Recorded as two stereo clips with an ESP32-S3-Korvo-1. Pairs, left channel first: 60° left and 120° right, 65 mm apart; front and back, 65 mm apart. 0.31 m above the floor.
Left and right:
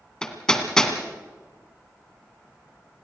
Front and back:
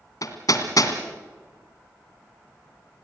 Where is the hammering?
20° right, 2.5 m.